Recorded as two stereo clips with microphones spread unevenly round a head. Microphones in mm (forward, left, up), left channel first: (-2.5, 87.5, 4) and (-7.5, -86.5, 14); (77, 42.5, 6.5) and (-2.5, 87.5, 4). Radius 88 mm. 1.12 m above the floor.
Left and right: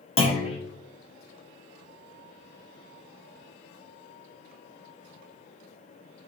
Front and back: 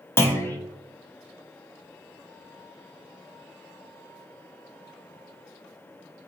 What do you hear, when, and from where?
0.2 s a clunk: 30° left, 0.9 m